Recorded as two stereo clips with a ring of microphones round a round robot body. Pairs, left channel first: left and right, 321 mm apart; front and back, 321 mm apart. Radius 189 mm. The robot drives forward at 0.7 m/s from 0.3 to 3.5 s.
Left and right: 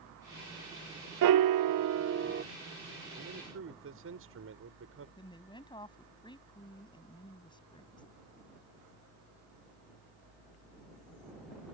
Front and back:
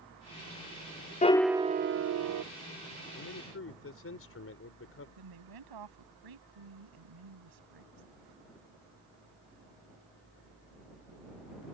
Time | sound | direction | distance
1.2 | a piano | 70° right | ?
3.1 | a man speaking | 40° right | ?
5.2 | a woman speaking | 165° left | ?